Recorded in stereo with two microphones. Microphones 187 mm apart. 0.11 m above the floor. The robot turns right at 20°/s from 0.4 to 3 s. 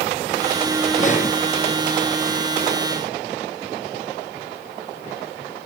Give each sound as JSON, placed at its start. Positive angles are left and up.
{"t": 1.0, "sound": "breathing", "side_deg": 40, "distance_m": 2.0}